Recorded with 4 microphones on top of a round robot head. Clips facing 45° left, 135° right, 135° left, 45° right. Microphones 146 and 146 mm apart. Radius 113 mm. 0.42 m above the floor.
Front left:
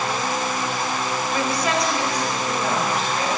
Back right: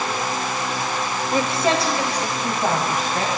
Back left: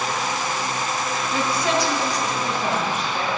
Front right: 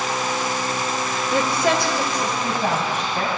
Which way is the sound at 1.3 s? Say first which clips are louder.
Back right 4 dB, front right 3 dB; 70° right.